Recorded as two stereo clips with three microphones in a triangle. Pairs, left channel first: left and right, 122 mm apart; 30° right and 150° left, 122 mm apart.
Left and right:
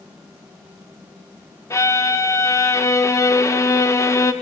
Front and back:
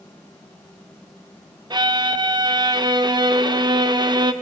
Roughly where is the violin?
Behind left.